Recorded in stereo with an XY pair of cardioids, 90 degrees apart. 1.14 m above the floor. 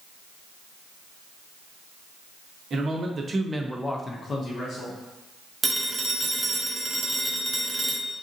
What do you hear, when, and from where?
2.7 s a man speaking: 55° right, 1.0 m; by 5.0 s 70° left, 1.0 m
5.6 s a phone ringing: 30° right, 0.6 m